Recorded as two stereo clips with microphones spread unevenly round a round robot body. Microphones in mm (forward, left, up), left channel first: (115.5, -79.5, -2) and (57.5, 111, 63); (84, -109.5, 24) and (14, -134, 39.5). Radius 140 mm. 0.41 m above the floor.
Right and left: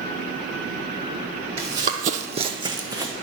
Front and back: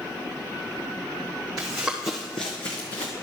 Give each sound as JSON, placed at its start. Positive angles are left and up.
{"t": 1.6, "sound": "running footsteps", "azimuth_deg": 160, "distance_m": 0.9}